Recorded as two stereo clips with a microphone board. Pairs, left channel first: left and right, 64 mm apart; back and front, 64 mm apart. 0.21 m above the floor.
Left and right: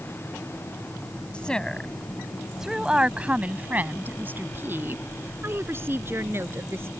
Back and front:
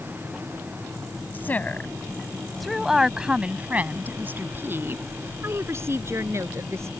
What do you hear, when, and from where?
1.3 s a woman speaking: 155° left; by 6.9 s 40° right